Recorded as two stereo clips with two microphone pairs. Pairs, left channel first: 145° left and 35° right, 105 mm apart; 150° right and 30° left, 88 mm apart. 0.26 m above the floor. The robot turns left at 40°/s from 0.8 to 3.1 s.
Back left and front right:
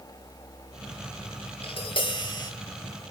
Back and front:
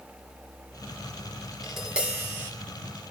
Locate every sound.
1.6 s tapping: 120° left, 4.5 m; by 2.5 s 85° left, 4.5 m